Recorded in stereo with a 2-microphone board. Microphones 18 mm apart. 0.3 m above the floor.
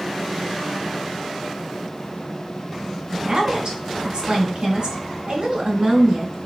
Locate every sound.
3.1 s a woman speaking: 50° right (ahead or behind), 3.5 m